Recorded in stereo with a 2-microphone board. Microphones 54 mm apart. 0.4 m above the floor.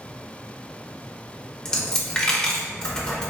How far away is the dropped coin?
About 0.5 m.